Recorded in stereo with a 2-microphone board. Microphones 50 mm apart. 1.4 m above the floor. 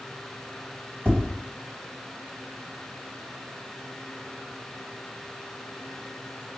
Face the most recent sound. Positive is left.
turn(degrees=-50)  # may be behind; listen again after turning